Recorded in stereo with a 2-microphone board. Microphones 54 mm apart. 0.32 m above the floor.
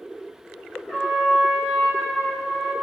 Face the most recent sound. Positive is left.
turn(degrees=10)  # may be behind; listen again after turning